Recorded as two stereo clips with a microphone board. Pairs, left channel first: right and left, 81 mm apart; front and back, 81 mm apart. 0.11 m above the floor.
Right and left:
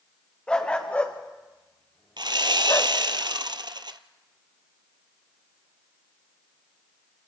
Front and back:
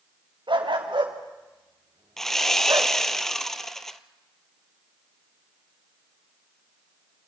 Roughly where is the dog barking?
Behind.